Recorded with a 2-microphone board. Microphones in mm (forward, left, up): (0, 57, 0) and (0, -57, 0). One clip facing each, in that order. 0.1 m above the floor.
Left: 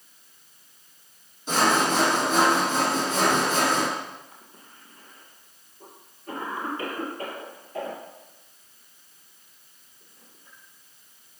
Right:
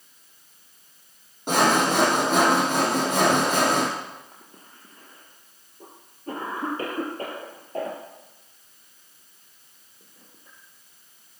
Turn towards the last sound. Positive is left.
turn(degrees=-40)  # may be behind; listen again after turning